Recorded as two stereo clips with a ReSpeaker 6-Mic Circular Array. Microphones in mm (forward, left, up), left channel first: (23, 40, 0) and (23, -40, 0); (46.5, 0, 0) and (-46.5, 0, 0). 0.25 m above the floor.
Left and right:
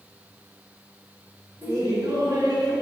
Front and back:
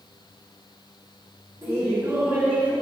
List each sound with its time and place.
1.6 s laughter: 125° right, 4 m; by 2.7 s 105° right, 3.5 m